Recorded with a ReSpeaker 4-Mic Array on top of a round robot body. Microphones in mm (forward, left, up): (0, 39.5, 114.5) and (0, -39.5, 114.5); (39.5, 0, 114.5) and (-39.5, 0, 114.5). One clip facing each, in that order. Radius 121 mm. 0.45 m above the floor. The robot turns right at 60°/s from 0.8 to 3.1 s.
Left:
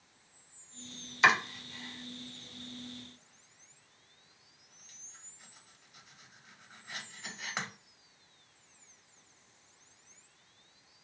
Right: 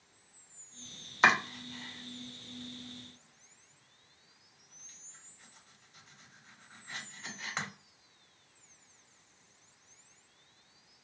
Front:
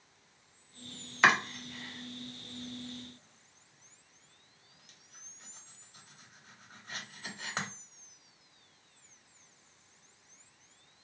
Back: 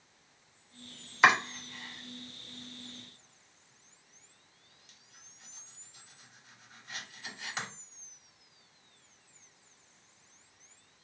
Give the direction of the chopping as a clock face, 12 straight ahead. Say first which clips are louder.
Even, back 2 dB; 3 o'clock.